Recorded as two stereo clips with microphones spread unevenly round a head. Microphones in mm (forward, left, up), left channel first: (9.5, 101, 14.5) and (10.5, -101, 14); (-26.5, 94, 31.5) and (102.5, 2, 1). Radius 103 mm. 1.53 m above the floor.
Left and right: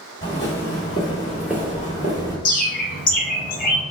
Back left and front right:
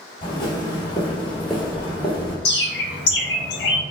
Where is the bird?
140° left, 0.6 m.